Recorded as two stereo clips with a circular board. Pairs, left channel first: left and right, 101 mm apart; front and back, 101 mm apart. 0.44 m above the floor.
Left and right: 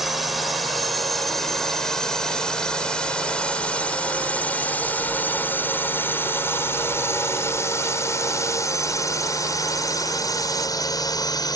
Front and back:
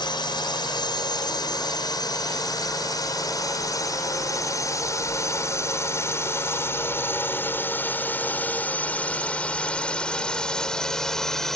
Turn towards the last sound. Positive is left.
turn(degrees=85)